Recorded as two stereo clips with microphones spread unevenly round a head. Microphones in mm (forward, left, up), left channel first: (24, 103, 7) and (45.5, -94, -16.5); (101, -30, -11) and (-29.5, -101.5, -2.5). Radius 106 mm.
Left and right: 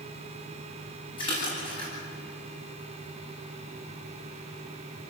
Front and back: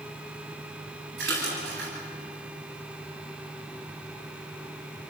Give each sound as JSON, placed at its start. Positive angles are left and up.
{"t": 1.2, "sound": "a splash", "azimuth_deg": 165, "distance_m": 9.5}